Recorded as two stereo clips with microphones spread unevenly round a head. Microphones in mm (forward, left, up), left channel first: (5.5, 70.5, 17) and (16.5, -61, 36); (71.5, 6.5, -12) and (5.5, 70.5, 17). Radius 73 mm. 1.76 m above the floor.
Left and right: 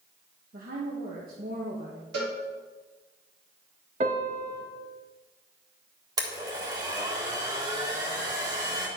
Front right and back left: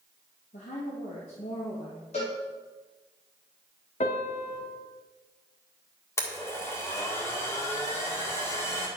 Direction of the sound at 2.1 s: 95° right.